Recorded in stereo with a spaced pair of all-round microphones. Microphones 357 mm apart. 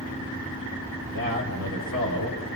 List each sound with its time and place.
1.0 s a man speaking: 80° right, 6 m